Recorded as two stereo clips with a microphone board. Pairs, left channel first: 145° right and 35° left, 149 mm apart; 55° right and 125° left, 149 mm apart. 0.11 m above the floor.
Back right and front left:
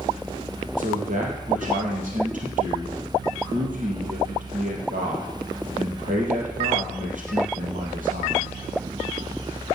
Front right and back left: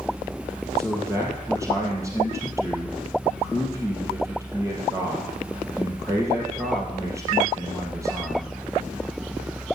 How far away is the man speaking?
About 3.5 m.